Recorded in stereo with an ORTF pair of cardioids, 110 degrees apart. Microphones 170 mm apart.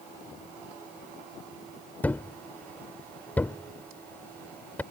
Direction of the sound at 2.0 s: 10° left.